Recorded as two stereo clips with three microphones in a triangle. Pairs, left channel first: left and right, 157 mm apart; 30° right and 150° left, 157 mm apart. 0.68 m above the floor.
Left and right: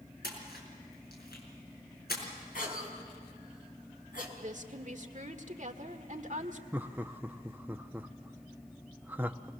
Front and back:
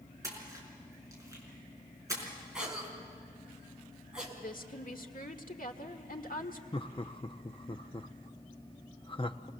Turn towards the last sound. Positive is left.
turn(degrees=-20)